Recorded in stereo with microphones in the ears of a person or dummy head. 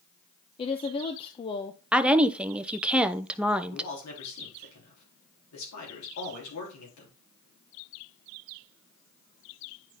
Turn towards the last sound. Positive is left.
turn(degrees=85)